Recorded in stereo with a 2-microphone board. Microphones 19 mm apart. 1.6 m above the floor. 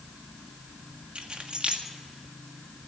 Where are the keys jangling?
50° right (ahead or behind), 1.8 m.